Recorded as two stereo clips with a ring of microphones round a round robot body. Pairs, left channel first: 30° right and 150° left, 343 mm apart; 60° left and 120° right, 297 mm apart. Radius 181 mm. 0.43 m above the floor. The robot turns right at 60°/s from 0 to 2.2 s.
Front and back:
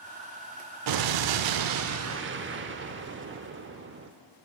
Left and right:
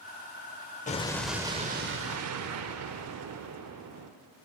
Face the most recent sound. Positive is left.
turn(degrees=-155)